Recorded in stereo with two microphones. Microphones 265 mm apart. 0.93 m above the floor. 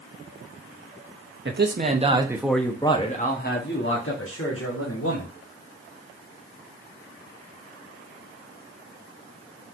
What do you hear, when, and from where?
1.4 s a man speaking: 45° right (ahead or behind), 1.3 m; by 5.3 s 60° left (ahead or behind), 2.5 m